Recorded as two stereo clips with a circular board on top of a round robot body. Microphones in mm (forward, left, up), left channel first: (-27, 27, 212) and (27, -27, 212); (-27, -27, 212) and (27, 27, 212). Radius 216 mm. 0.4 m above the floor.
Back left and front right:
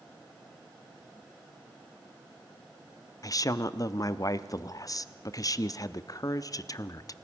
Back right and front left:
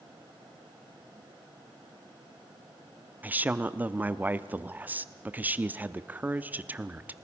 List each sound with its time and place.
3.2 s a woman speaking: 110° left, 1.1 m